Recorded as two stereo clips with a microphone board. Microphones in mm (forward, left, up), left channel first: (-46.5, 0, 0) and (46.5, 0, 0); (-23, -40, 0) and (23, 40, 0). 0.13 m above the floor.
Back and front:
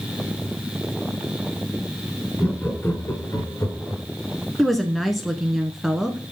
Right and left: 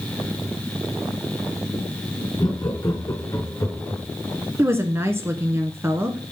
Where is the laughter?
110° right, 2.5 m; by 4.0 s 170° right, 2.5 m.